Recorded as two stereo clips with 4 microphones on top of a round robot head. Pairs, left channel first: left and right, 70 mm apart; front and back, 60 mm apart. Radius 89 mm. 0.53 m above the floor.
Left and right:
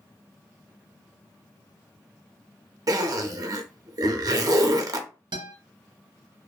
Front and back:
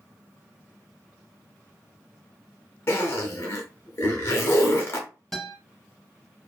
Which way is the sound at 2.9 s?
55° right.